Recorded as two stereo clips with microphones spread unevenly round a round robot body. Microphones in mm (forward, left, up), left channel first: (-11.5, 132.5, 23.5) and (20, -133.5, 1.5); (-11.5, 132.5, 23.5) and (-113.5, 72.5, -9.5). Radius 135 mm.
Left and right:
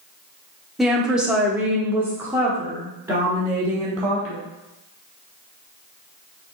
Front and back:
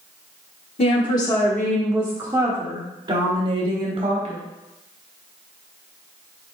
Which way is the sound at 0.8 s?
Straight ahead.